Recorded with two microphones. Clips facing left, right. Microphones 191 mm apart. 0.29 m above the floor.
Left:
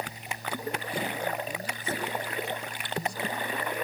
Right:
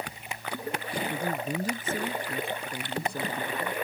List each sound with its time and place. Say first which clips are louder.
1.1 s a man speaking: right 2 dB; 40° right (ahead or behind); by 3.7 s 60° right (ahead or behind)